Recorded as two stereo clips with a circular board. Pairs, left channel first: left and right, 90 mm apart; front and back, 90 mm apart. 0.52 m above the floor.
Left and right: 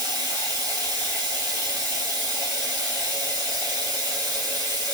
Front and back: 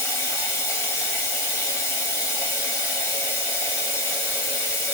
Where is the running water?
55° right, 2 m.